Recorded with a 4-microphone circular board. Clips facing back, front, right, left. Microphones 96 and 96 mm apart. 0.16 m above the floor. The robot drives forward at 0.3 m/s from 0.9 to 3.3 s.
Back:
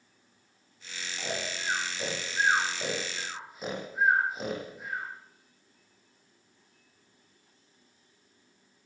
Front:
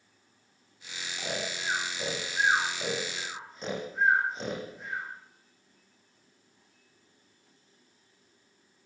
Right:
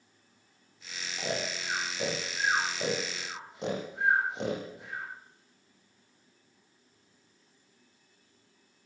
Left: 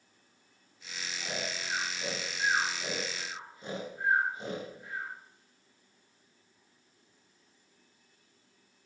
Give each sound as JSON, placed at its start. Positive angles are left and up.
{"t": 1.2, "sound": "snoring", "azimuth_deg": -90, "distance_m": 9.0}